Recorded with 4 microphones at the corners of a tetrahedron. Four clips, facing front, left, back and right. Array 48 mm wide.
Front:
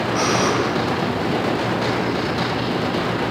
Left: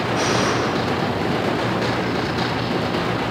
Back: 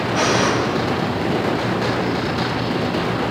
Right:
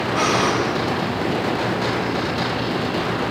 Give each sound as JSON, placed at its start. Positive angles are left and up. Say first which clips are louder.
{"t": 0.1, "sound": "breathing", "louder": "right 2 dB, back 2 dB", "azimuth_deg": 180, "distance_m": 5.5}